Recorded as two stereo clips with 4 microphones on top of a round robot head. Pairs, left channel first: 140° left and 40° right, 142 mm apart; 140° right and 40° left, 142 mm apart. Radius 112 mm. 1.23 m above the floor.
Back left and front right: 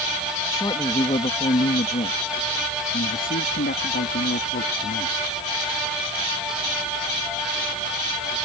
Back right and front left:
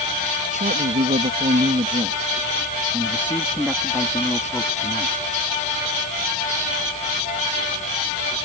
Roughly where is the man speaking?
Left.